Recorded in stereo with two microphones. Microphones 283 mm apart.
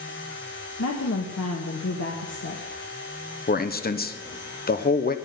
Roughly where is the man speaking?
Left.